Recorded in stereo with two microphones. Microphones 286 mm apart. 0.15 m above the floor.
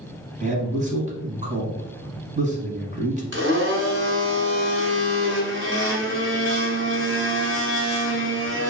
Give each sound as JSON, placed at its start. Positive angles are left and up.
{"t": 0.4, "sound": "a man speaking", "side_deg": -25, "distance_m": 1.1}
{"t": 3.3, "sound": "a blender", "side_deg": -40, "distance_m": 1.2}